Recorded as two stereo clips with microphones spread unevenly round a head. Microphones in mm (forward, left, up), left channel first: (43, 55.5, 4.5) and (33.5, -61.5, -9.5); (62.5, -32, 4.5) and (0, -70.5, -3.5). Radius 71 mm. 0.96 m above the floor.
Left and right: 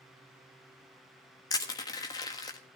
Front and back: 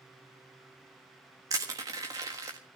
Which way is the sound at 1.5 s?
155° left.